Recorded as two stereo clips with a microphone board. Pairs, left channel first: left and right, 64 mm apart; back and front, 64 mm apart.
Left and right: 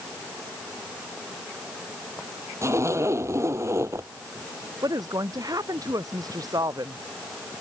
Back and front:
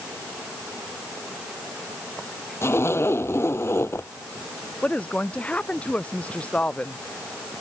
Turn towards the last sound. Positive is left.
turn(degrees=-110)